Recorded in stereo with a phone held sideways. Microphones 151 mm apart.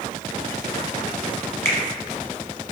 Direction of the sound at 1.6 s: 15° left (ahead or behind).